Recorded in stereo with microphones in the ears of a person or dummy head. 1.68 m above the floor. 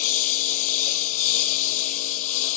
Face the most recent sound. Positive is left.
turn(degrees=40)  # may be behind; listen again after turning